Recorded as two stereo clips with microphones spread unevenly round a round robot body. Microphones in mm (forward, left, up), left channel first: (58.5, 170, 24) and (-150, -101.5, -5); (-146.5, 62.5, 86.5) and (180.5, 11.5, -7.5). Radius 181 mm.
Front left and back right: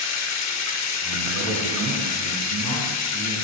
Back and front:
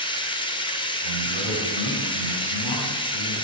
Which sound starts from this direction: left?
Running water, at 0.0 s.